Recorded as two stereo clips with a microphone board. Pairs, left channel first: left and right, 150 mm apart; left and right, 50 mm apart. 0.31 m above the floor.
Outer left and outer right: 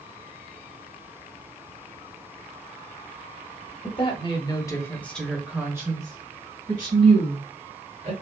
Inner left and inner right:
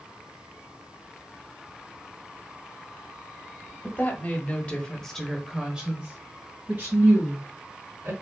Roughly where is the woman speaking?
Left.